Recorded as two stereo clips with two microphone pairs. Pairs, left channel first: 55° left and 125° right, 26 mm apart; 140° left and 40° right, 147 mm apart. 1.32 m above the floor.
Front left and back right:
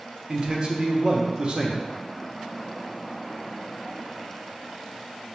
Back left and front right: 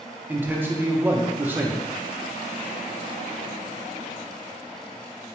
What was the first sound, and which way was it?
A man speaking, 105° right.